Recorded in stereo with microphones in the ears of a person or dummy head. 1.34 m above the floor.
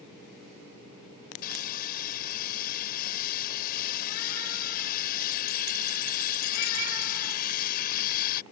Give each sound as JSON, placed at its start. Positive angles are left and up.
{"t": 1.4, "sound": "sawing", "side_deg": 55}